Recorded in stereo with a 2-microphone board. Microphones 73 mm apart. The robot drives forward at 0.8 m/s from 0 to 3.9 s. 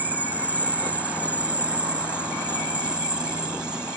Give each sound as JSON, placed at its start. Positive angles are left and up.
{"t": 0.0, "sound": "an insect", "side_deg": -20}